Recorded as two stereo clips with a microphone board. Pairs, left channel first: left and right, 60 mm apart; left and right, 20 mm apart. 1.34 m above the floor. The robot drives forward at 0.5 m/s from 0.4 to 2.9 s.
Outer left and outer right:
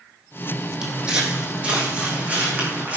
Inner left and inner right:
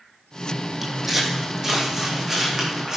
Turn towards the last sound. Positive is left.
turn(degrees=-25)  # may be behind; listen again after turning